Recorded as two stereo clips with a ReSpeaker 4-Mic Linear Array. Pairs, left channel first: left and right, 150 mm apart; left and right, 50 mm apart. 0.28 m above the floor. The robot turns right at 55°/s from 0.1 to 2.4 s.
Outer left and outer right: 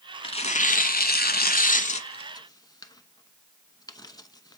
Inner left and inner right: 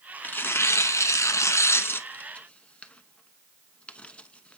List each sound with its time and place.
0.2 s tearing paper: 35° left (ahead or behind), 0.7 m; by 4.6 s 25° left (ahead or behind), 0.7 m